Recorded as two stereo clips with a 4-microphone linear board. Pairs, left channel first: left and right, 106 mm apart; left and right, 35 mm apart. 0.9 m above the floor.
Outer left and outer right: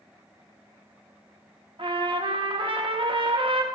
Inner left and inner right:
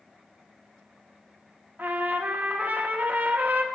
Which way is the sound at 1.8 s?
55° right (ahead or behind).